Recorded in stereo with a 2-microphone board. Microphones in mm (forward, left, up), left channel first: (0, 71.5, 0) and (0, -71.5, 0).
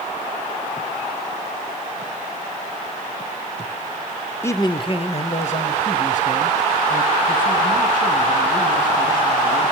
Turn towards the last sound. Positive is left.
turn(degrees=70)  # may be behind; listen again after turning